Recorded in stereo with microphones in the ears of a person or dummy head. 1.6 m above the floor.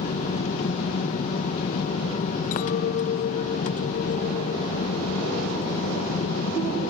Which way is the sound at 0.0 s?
40° left (ahead or behind).